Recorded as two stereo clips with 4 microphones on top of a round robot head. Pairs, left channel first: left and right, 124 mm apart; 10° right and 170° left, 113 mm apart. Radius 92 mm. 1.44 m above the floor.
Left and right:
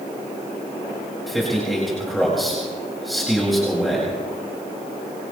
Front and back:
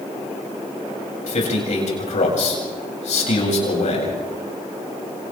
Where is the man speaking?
Straight ahead, 7.5 m.